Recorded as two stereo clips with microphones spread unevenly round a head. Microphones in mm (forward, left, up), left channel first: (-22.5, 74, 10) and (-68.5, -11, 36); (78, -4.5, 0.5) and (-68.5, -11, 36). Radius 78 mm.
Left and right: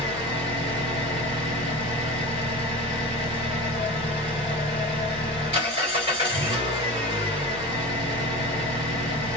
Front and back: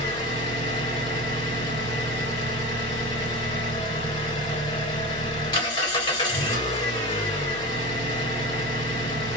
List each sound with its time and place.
0.0 s an engine running: 60° right, 1.8 m